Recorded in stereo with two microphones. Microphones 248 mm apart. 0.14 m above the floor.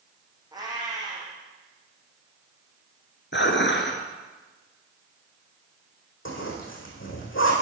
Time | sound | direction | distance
0.5 | a cat meowing | 15° right (ahead or behind) | 3 m
3.3 | dishes clattering | 50° left (ahead or behind) | 1.4 m
6.2 | a zipper | 55° left (ahead or behind) | 4 m